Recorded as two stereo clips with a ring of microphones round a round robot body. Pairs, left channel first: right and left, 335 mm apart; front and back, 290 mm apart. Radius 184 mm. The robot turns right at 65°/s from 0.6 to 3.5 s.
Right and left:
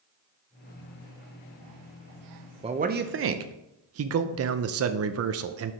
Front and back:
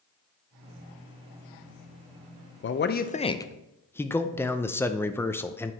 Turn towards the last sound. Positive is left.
turn(degrees=80)